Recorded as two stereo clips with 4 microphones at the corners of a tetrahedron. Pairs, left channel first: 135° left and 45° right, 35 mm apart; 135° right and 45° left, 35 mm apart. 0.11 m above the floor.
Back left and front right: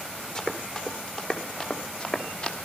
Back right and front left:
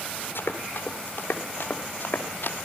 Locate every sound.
0.3 s running footsteps: 155° right, 3.5 m; by 2.5 s 160° right, 2.5 m